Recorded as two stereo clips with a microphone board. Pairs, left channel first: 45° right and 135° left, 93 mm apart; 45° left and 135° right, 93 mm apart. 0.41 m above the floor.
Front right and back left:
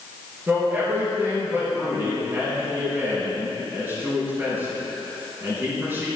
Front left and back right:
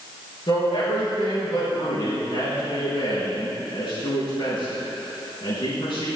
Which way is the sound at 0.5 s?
70° left.